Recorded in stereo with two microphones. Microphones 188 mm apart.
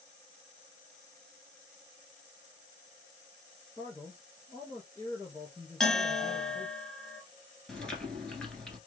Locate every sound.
3.8 s a man speaking: 15° left (ahead or behind), 2 m
5.8 s a bell: centre (ahead or behind), 1.3 m
7.7 s chewing: 5° left (ahead or behind), 1.7 m